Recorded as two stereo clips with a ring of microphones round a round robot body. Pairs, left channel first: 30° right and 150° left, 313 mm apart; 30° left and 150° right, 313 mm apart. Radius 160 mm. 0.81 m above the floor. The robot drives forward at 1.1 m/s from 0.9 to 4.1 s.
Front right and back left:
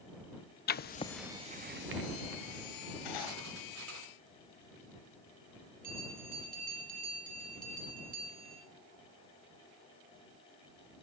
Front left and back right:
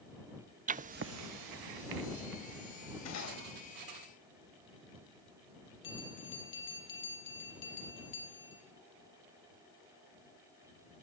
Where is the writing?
90° right, 0.6 m; by 4.0 s 170° right, 3.5 m.